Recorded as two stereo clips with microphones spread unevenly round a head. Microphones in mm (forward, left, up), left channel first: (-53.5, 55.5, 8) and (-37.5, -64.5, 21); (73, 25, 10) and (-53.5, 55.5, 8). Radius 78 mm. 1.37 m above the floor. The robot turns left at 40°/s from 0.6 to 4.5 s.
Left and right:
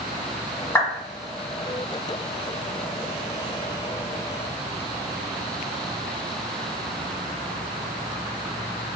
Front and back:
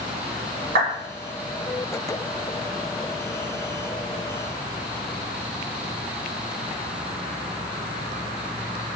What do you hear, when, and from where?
0.8 s a clap: 175° left, 1.4 m; by 0.9 s 170° left, 1.4 m